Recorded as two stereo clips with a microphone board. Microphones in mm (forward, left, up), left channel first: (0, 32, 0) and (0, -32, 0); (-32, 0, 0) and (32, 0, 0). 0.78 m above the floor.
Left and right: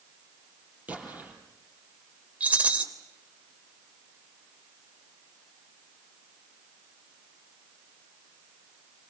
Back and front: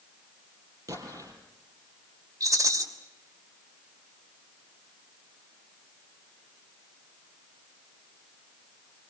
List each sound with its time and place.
0.9 s an explosion: 25° right, 5 m
2.4 s a rattle: 20° right, 3 m